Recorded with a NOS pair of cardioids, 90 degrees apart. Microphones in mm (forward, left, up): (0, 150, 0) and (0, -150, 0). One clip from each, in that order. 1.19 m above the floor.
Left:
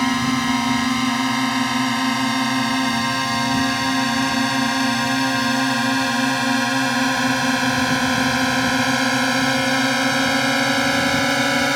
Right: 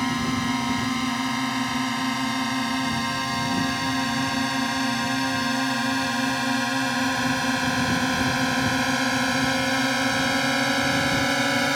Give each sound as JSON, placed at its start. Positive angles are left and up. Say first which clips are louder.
{"t": 0.0, "sound": "a drone", "louder": "left 5 dB", "azimuth_deg": 45}